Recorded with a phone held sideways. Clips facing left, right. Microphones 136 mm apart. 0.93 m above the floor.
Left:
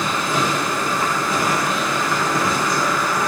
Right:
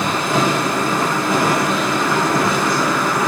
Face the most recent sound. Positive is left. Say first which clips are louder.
# right 4 dB
turn(degrees=-55)  # may be behind; listen again after turning